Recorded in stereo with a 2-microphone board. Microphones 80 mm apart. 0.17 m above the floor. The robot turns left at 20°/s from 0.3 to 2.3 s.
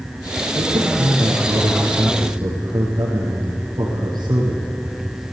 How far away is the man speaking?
About 7.5 m.